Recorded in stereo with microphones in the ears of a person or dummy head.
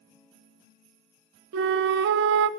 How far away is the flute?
About 0.6 m.